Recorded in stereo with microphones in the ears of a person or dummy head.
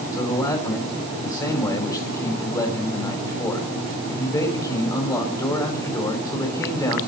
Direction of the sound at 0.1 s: 20° left (ahead or behind).